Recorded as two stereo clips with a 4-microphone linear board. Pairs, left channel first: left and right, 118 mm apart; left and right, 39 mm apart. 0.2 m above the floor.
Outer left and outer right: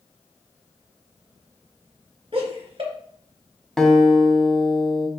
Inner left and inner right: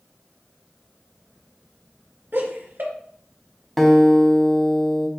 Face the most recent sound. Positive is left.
turn(degrees=5)  # may be behind; listen again after turning